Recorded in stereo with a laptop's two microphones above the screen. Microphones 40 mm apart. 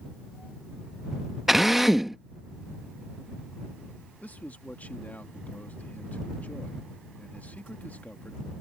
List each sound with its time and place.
1.5 s a drill: 5° right (ahead or behind)
4.2 s a man speaking: 40° left (ahead or behind)